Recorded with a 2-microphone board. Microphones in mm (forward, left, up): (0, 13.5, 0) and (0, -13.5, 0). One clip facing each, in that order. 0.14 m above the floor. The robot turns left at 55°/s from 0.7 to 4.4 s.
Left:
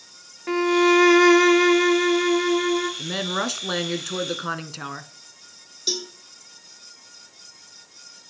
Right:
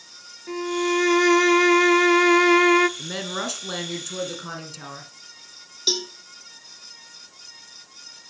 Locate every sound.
0.5 s a violin: 40° left, 0.7 m; by 2.9 s 80° right, 0.7 m
3.0 s a woman speaking: 165° left, 1.8 m; by 5.1 s 90° left, 1.8 m
5.9 s a cowbell: 25° right (ahead or behind), 2.5 m